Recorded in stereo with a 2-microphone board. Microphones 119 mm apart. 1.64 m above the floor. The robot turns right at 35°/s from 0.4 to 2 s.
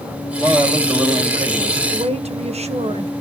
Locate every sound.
0.4 s a man speaking: straight behind, 10 m; by 1.8 s 130° right, 10 m
1.9 s a woman speaking: 65° right (ahead or behind), 1.2 m